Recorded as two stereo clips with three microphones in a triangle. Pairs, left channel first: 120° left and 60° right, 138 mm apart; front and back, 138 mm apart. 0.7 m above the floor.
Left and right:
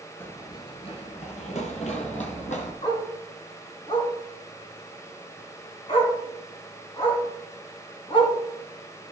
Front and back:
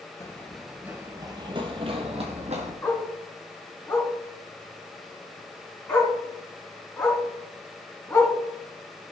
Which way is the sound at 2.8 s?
75° left.